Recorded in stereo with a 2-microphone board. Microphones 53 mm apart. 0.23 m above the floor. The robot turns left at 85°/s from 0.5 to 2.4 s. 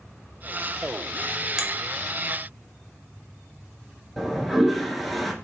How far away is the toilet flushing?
About 0.8 m.